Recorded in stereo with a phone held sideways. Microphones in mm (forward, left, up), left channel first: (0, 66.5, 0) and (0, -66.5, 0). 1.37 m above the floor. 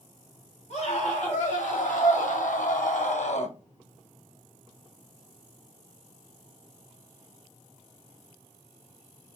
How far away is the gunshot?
I don't hear a gunshot.